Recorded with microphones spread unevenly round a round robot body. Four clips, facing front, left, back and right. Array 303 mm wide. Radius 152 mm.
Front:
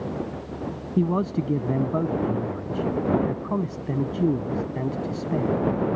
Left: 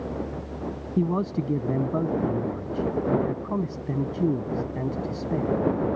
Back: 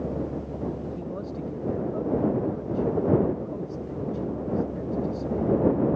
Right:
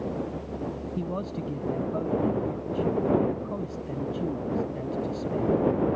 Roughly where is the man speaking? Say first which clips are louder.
Left 10 dB, front 10 dB; ahead left.